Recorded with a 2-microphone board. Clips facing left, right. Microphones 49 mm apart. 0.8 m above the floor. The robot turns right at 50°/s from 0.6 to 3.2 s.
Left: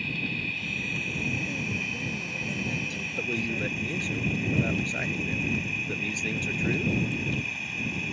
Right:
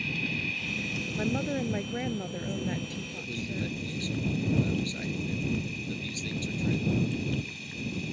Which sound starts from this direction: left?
A man speaking, at 3.2 s.